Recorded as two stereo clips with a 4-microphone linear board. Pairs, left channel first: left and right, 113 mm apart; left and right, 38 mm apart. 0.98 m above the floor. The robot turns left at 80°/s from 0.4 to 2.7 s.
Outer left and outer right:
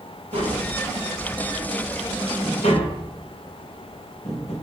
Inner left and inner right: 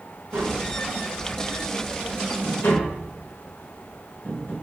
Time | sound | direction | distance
0.3 | tapping | 75° right (ahead or behind) | 3 m